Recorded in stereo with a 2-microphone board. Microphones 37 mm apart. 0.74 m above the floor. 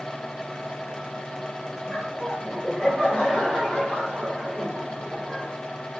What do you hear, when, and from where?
1.9 s laughter: 20° left (ahead or behind), 2.5 m; by 5.5 s 25° right (ahead or behind), 3.5 m